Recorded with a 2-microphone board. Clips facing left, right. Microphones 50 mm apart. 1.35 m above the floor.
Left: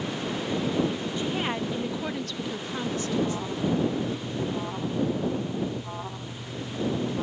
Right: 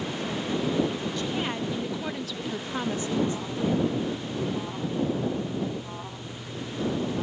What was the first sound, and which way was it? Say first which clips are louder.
A woman speaking: left 3 dB; 20° left (ahead or behind).